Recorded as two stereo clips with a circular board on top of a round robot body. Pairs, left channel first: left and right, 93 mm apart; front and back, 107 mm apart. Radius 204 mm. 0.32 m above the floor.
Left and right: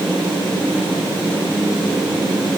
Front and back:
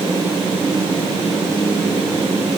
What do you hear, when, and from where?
Only background noise.